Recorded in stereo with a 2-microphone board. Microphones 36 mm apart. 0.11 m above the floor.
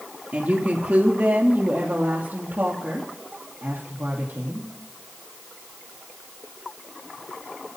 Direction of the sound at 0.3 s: 50° right (ahead or behind).